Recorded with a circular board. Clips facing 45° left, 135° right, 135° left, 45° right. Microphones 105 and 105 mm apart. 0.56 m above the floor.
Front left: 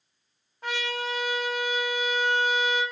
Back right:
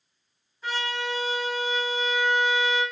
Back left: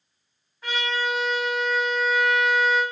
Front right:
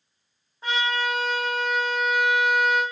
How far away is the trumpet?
About 1.5 m.